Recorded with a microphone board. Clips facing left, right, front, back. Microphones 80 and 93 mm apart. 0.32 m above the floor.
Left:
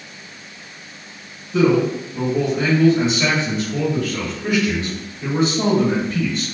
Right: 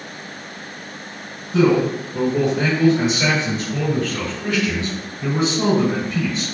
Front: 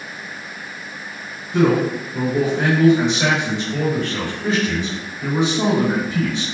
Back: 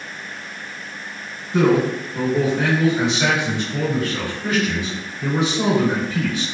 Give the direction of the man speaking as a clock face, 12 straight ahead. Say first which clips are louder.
Even, even; 3 o'clock.